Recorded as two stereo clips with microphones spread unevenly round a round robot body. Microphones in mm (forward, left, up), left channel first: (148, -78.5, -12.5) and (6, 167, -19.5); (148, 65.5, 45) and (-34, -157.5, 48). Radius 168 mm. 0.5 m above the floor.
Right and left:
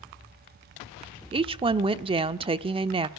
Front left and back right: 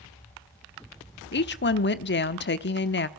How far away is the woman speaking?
About 0.9 m.